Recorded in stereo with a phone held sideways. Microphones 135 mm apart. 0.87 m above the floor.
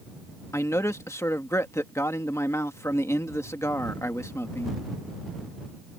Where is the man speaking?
20° left (ahead or behind).